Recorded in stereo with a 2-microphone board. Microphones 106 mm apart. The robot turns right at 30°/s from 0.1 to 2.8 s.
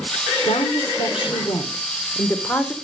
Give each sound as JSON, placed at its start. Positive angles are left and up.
{"t": 0.5, "sound": "a woman speaking", "azimuth_deg": 100, "distance_m": 1.8}